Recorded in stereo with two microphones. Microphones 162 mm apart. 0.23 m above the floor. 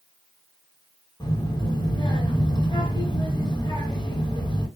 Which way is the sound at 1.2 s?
25° left (ahead or behind).